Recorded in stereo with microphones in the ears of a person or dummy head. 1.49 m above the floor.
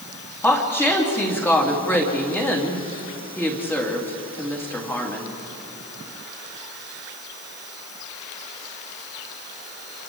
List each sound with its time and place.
0.4 s a woman speaking: 10° left (ahead or behind), 2.5 m